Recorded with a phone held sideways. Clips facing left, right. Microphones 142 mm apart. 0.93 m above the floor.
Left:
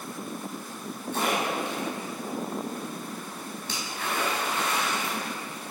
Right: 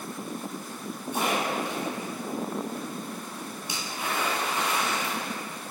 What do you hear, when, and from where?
1.1 s a splash: 15° right (ahead or behind), 4.5 m